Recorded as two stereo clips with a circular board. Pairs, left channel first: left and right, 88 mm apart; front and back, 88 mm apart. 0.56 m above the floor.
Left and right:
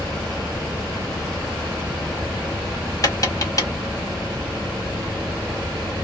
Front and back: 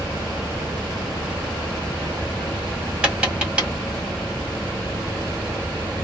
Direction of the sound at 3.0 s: 105° left.